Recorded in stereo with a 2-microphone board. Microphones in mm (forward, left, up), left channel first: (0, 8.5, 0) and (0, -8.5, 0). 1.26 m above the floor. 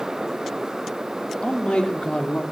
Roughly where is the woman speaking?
Left.